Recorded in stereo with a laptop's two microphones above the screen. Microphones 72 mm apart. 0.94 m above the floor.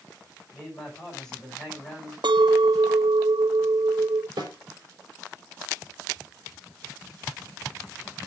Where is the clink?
80° right, 0.6 m.